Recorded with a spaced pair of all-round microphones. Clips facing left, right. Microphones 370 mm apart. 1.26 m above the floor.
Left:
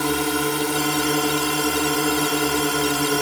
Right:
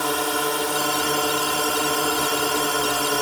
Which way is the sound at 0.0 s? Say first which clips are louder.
Left 3 dB; 35° left (ahead or behind).